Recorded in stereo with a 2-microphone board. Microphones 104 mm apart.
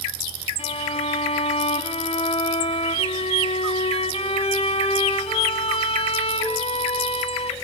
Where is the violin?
75° left (ahead or behind), 1.5 m.